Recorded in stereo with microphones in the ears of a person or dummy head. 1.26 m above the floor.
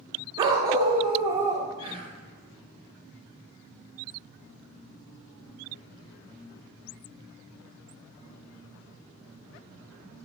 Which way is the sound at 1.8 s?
30° right (ahead or behind).